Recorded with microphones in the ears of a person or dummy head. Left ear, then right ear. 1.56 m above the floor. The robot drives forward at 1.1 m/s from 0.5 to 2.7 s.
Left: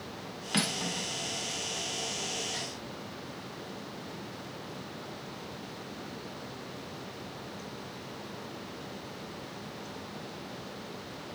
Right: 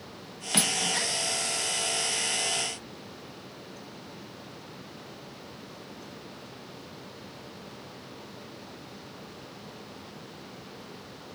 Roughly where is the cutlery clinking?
Centre.